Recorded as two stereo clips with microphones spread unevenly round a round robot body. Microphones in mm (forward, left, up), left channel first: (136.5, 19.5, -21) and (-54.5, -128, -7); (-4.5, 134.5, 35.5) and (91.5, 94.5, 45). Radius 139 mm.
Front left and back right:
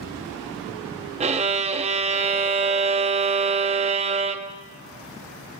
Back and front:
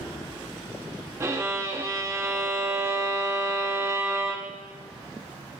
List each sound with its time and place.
1.2 s a violin: 85° right, 0.7 m